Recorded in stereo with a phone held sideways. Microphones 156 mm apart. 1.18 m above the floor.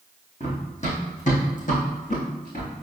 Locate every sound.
0.4 s running footsteps: 45° left (ahead or behind), 3 m; by 2.7 s 60° left (ahead or behind), 5 m